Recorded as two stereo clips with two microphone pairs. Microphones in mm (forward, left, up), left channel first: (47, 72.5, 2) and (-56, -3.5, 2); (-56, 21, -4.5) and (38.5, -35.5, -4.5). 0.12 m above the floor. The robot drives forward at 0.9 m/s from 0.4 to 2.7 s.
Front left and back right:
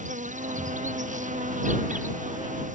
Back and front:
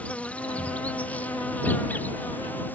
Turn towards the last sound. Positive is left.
turn(degrees=-135)